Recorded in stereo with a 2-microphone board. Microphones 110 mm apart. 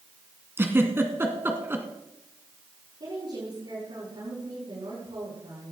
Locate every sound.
0.6 s a giggle: 20° right (ahead or behind), 1.8 m
3.0 s a woman speaking: 50° right (ahead or behind), 7.5 m